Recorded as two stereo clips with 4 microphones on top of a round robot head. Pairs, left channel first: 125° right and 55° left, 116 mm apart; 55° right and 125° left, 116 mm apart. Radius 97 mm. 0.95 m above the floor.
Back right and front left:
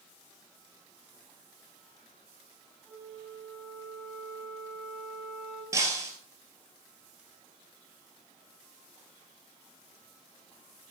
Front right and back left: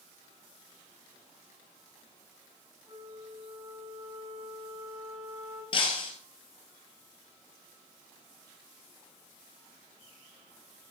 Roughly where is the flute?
Behind left.